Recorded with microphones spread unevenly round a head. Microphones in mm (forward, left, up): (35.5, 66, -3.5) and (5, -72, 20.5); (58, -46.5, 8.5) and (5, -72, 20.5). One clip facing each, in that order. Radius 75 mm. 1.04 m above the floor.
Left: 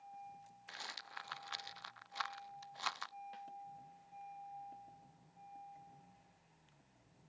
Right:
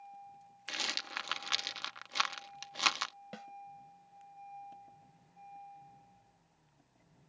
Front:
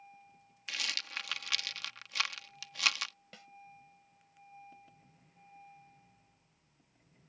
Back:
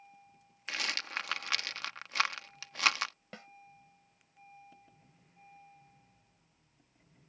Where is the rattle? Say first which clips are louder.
Right 9 dB, back 3 dB; 100° right.